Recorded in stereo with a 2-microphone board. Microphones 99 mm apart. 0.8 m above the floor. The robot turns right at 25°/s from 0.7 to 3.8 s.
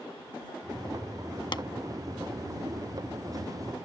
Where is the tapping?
50° left (ahead or behind).